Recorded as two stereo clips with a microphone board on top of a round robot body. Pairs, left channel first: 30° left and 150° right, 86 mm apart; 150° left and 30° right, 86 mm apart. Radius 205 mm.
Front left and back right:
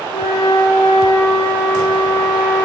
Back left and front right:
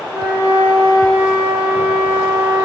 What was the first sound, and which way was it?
A flute, 45° left.